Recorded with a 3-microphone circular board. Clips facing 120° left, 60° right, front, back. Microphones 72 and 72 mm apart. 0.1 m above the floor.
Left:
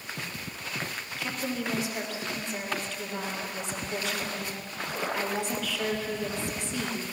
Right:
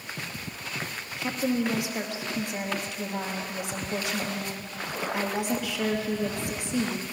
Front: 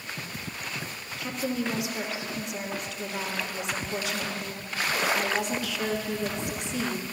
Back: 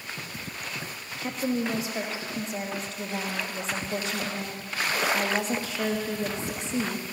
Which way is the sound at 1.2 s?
135° right.